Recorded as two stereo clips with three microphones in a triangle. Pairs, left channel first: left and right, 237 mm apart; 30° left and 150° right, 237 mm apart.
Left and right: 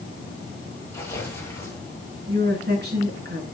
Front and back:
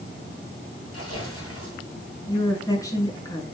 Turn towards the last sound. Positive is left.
turn(degrees=-45)